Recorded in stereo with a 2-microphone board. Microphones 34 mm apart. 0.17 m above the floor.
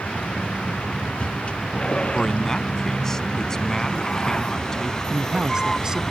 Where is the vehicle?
40° left (ahead or behind); by 6.1 s 15° left (ahead or behind).